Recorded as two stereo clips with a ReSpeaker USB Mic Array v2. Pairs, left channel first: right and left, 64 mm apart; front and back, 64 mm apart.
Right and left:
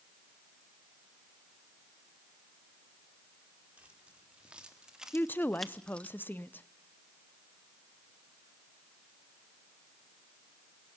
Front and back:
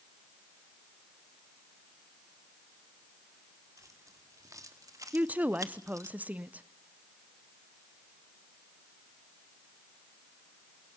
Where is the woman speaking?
130° right, 0.7 m.